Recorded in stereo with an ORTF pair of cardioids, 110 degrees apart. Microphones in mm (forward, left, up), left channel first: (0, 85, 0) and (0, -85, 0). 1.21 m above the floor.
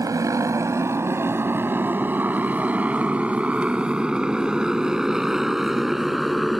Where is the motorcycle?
20° right; by 6.6 s straight ahead.